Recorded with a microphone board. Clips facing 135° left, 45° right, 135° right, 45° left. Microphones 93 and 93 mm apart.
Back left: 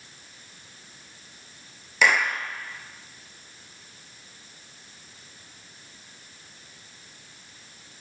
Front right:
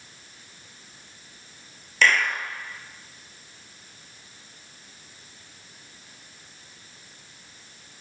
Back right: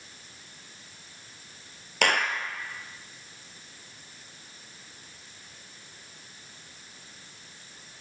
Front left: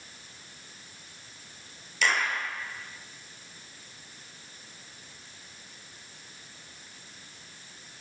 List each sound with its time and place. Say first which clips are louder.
2.0 s a clap: even, back right 2 dB; 145° right, 2.5 m